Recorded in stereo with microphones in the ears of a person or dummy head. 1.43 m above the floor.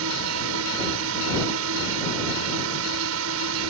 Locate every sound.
0.0 s a drone: 75° right (ahead or behind)